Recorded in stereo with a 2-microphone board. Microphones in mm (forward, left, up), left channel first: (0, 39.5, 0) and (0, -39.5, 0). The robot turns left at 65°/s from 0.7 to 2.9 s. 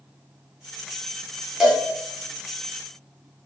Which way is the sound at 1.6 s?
5° right (ahead or behind).